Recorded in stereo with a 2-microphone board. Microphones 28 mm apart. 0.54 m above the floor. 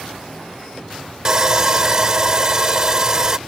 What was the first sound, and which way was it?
Sawing, 25° right (ahead or behind).